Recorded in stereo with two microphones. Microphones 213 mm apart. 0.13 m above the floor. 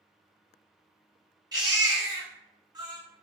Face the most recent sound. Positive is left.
turn(degrees=-20)  # may be behind; listen again after turning